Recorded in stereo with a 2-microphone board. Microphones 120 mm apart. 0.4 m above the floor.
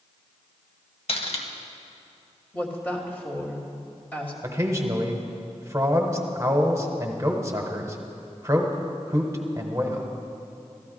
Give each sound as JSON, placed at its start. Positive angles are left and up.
{"t": 1.1, "sound": "cutlery clinking", "side_deg": 55, "distance_m": 1.2}
{"t": 2.5, "sound": "a woman speaking", "side_deg": 15, "distance_m": 2.0}
{"t": 4.4, "sound": "a man speaking", "side_deg": -25, "distance_m": 1.2}